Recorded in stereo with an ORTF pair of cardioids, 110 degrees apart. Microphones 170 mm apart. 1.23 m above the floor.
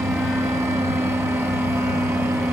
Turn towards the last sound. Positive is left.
turn(degrees=-15)